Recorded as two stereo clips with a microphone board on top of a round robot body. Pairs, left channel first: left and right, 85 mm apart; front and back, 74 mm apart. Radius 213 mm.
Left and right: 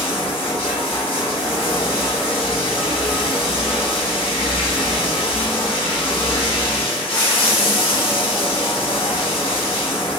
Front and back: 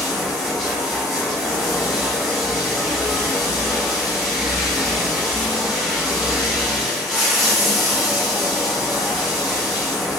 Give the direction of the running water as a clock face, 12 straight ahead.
9 o'clock.